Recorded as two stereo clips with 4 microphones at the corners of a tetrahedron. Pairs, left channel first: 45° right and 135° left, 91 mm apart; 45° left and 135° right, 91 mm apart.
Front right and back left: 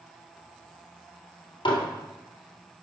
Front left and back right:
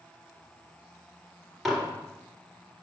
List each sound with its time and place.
1.6 s dishes clattering: 45° right, 2 m